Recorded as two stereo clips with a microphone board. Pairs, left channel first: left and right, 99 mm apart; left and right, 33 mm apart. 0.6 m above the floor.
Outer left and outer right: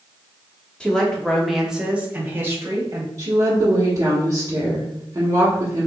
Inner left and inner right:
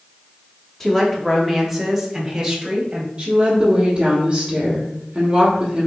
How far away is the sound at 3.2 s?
About 1.1 m.